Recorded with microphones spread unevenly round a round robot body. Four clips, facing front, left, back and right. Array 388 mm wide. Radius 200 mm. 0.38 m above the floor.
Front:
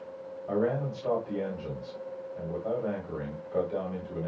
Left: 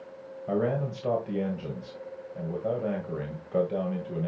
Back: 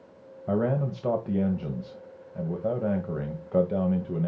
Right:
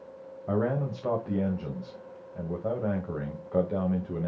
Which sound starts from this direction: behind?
A man speaking, at 0.5 s.